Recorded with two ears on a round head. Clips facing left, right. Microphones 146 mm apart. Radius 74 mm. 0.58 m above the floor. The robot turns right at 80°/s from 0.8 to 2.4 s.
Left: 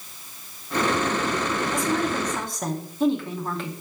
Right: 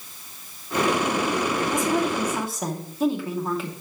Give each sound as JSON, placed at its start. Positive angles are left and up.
{"t": 1.7, "sound": "a woman speaking", "side_deg": -20, "distance_m": 0.8}